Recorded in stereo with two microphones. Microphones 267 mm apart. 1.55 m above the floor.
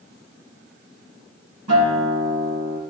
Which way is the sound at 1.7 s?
80° right.